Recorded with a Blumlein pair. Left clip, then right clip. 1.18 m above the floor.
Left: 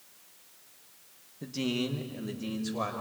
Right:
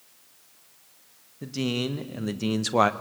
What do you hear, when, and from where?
1.4 s a man speaking: 10° right, 1.5 m; by 2.9 s 45° right, 1.0 m